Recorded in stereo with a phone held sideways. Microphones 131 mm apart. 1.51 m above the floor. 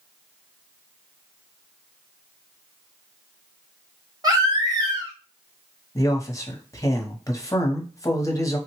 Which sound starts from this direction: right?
A baby crying, at 4.2 s.